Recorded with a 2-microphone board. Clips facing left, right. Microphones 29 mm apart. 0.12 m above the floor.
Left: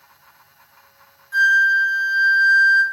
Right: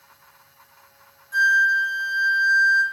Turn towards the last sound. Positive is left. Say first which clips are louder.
# left 3 dB
turn(degrees=15)  # may be behind; listen again after turning